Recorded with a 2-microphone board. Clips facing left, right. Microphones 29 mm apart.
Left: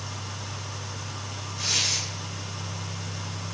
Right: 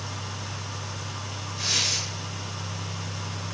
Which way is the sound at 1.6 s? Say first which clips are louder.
Even; 15° right (ahead or behind).